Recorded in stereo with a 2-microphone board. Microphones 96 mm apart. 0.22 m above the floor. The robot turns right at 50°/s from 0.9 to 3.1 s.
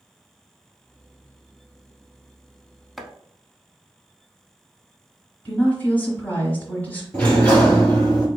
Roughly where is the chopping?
Centre.